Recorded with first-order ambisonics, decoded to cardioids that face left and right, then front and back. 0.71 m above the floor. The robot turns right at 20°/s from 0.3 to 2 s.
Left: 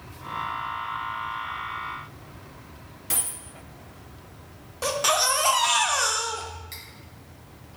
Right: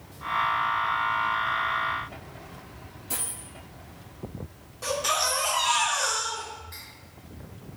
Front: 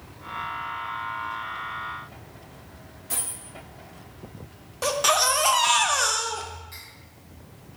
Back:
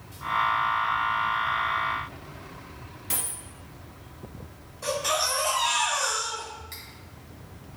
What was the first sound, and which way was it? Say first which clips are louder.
A dropped coin: left 4 dB, even; 120° left.